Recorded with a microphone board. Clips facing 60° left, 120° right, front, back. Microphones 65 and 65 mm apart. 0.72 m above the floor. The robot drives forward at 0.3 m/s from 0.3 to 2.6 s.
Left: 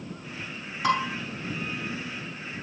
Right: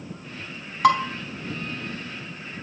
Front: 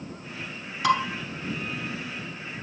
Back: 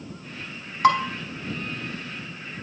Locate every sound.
0.8 s dishes clattering: 135° right, 2.5 m